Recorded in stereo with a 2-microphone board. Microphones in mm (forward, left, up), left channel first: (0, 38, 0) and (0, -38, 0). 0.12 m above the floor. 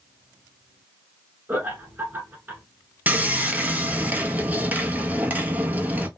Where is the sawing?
20° right (ahead or behind), 0.6 m.